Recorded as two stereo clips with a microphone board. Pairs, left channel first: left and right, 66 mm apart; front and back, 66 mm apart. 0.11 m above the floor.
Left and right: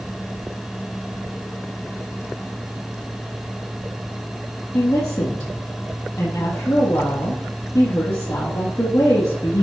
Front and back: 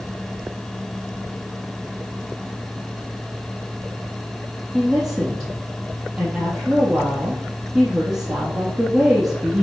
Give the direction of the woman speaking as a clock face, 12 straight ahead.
9 o'clock.